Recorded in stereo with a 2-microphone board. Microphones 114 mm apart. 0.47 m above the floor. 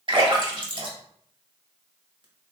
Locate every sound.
0.1 s a splash: 45° right (ahead or behind), 0.9 m